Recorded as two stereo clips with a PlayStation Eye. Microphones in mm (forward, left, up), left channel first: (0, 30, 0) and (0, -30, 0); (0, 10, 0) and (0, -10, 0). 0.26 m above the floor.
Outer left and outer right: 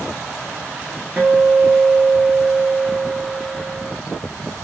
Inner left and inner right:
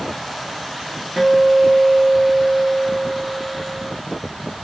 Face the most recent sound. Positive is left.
turn(degrees=-15)  # may be behind; listen again after turning